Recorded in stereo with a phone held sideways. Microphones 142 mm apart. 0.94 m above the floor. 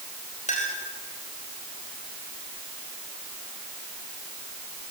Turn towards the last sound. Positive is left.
turn(degrees=60)  # may be behind; listen again after turning